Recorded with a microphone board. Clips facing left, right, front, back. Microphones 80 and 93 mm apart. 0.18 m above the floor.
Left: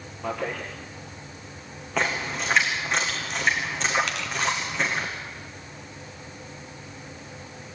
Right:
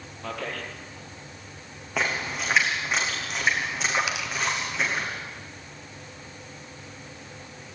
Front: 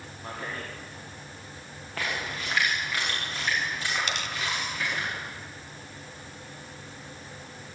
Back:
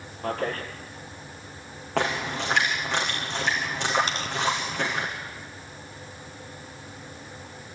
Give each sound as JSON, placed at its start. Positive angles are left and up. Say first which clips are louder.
{"t": 0.2, "sound": "a man speaking", "louder": "left 4 dB, back 8 dB", "azimuth_deg": 165, "distance_m": 4.5}
{"t": 2.0, "sound": "a splash", "louder": "left 1 dB, back 7 dB", "azimuth_deg": -175, "distance_m": 7.5}
{"t": 4.1, "sound": "tearing paper", "louder": "even, back 2 dB", "azimuth_deg": -165, "distance_m": 1.9}